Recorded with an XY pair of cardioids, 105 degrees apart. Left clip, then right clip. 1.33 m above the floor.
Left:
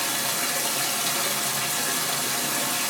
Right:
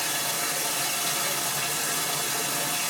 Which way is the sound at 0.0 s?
50° left.